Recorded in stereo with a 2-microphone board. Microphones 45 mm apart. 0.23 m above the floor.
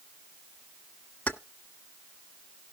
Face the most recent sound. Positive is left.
turn(degrees=35)  # may be behind; listen again after turning